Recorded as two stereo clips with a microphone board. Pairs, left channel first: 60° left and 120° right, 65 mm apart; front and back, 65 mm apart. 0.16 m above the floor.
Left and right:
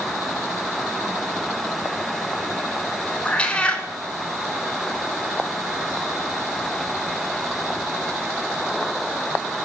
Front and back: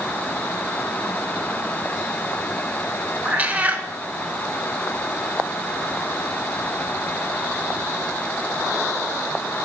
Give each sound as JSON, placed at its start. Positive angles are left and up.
{"t": 3.2, "sound": "a cat meowing", "azimuth_deg": 125, "distance_m": 0.5}